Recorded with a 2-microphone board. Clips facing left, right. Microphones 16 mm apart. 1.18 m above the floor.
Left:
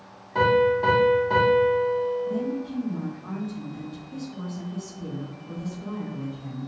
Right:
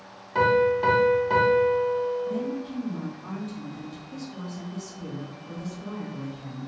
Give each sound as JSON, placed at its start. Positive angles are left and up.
{"t": 0.3, "sound": "a piano", "side_deg": -20, "distance_m": 0.7}
{"t": 2.3, "sound": "a woman speaking", "side_deg": -45, "distance_m": 0.8}